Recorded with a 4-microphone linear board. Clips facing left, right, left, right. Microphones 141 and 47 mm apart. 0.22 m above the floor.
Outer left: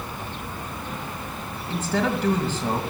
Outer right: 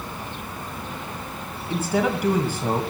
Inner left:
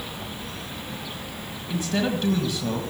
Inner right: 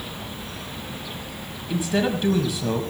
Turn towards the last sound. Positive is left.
turn(degrees=-10)  # may be behind; listen again after turning